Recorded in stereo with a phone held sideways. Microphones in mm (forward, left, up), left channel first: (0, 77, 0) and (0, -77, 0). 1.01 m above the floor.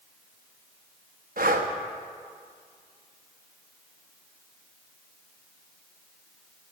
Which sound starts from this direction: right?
Breathing, at 1.4 s.